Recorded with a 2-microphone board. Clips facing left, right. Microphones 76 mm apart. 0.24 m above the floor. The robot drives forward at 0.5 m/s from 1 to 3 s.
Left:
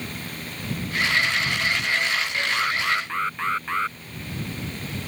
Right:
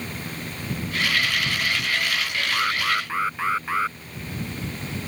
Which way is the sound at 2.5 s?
5° right (ahead or behind).